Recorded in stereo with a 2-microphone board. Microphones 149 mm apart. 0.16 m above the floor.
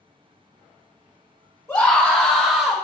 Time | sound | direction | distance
1.7 | a scream | 15° left (ahead or behind) | 1.6 m